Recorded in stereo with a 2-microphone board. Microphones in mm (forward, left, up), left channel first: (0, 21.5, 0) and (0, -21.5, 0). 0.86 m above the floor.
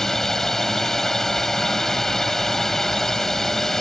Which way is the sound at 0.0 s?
10° left (ahead or behind).